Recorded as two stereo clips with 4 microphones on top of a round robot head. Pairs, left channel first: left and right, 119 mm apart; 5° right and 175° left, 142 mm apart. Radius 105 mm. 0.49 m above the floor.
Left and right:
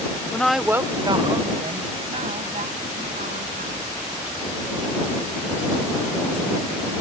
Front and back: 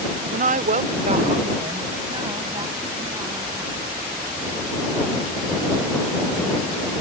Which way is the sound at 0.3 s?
165° left.